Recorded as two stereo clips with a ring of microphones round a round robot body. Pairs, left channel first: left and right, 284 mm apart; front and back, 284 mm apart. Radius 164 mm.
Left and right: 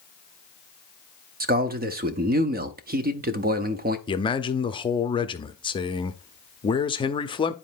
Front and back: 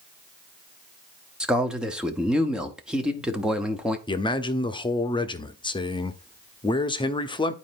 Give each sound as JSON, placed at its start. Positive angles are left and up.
{"t": 1.4, "sound": "a man speaking", "azimuth_deg": -95, "distance_m": 0.8}
{"t": 4.1, "sound": "a man speaking", "azimuth_deg": 45, "distance_m": 0.8}